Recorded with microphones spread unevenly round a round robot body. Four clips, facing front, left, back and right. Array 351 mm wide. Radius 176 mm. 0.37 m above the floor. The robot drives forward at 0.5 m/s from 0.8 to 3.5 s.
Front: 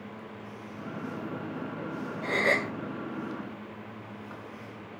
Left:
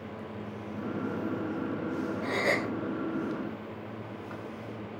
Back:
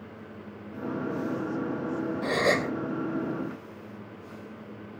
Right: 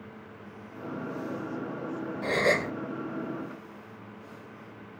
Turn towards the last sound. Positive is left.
turn(degrees=-150)